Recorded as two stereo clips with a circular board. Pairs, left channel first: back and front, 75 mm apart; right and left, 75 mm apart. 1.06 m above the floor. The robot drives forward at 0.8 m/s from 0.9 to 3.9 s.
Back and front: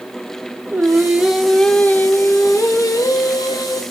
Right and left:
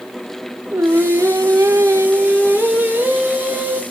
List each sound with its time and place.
0.7 s singing: 50° left, 0.9 m; by 3.8 s 165° left, 2.0 m